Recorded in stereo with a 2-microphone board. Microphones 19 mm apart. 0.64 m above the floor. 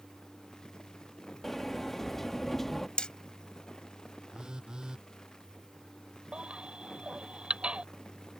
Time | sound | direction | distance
1.4 | a sliding door | 10° left (ahead or behind) | ?
3.0 | hammering | 55° left (ahead or behind) | ?
4.3 | a phone buzzing | 45° right (ahead or behind) | ?
6.3 | a baby crying | 70° right (ahead or behind) | ?